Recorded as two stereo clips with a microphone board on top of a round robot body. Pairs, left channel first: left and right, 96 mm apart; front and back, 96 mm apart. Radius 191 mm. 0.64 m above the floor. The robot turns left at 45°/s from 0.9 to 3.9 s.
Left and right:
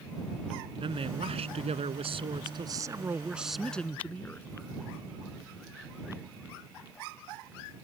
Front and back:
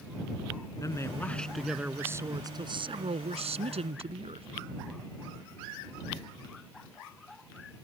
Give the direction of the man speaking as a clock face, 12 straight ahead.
2 o'clock.